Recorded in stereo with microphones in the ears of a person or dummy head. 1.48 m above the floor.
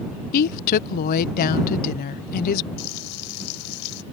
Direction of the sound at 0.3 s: 45° left (ahead or behind).